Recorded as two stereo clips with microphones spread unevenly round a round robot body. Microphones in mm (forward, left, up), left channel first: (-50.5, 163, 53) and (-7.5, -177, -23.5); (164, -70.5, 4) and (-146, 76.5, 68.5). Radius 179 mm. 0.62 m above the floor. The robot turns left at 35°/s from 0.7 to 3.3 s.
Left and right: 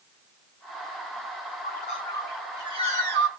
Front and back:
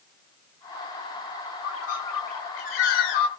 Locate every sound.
1.6 s a bird: 30° left, 1.3 m; by 3.3 s 25° right, 1.3 m